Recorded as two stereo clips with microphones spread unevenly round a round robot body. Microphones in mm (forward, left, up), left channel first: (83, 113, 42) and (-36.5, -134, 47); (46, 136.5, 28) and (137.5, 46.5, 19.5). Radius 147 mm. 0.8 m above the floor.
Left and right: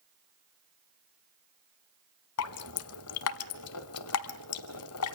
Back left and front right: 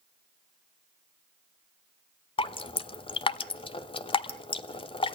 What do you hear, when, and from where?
2.4 s dripping: 100° left, 1.1 m